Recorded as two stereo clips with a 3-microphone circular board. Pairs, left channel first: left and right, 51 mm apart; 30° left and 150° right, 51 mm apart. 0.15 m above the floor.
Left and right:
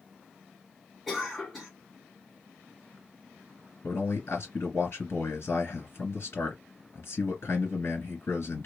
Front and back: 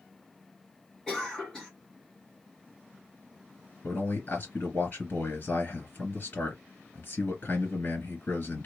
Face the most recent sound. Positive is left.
turn(degrees=70)